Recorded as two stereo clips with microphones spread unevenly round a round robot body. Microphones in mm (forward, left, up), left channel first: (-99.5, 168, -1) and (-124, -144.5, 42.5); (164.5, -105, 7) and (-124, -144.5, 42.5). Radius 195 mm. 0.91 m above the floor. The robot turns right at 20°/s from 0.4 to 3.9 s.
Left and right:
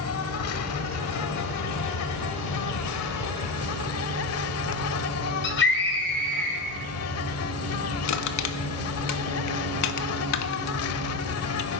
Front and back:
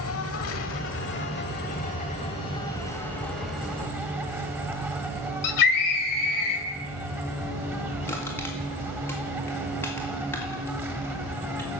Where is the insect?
45° left, 0.8 m; by 11.8 s 115° left, 0.8 m.